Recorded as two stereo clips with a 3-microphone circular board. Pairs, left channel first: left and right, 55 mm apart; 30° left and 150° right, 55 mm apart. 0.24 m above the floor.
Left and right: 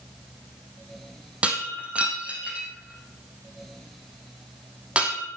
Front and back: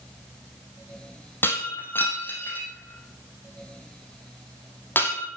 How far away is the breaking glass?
About 4 m.